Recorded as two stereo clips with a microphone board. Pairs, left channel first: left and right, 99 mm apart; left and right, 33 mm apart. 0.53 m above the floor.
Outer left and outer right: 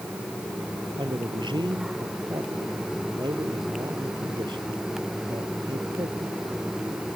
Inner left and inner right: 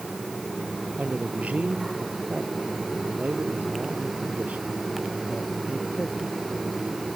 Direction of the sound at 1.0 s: 50° right (ahead or behind).